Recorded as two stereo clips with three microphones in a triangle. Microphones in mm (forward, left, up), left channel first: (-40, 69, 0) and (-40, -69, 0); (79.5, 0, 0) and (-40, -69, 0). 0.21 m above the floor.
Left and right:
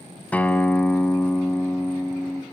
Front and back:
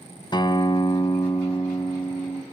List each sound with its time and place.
0.3 s a guitar: 20° left, 1.2 m